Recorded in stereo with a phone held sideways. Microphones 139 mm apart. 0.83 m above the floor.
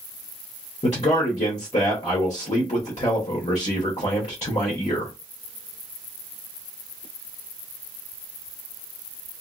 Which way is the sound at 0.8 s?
55° left (ahead or behind).